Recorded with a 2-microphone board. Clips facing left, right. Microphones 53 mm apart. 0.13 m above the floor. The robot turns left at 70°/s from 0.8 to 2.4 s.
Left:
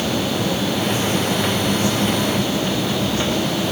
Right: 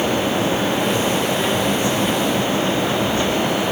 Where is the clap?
I don't hear a clap.